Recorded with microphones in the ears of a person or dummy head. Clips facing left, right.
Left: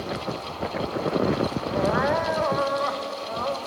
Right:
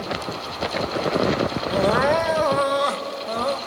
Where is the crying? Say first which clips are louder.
Right 5 dB; 40° right (ahead or behind), 1.4 m.